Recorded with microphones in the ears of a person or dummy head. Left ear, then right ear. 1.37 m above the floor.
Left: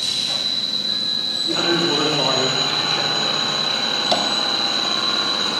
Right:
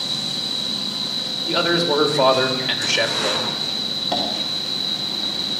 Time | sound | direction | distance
0.0 | an insect | 55° left (ahead or behind) | 8 m
1.5 | a man speaking | 25° right (ahead or behind) | 3 m
4.1 | tapping | 70° left (ahead or behind) | 3 m